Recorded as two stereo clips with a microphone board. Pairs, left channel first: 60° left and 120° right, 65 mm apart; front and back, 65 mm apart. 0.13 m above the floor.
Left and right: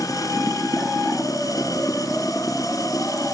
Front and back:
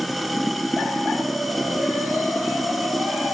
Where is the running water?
90° left.